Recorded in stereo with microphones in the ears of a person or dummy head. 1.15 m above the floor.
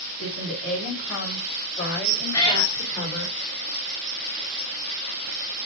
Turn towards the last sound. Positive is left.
turn(degrees=20)  # may be behind; listen again after turning